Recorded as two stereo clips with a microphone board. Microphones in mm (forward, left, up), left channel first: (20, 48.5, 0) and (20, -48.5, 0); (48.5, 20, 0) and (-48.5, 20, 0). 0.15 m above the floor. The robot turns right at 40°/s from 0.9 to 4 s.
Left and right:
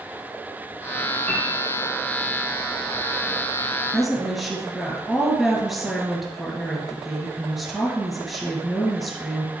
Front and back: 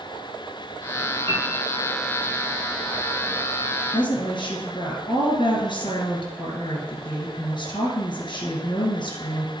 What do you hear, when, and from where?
1.3 s a piano: 165° left, 3 m; by 1.4 s 175° left, 3 m
3.9 s a woman speaking: 5° right, 2.0 m; by 9.5 s straight ahead, 2.0 m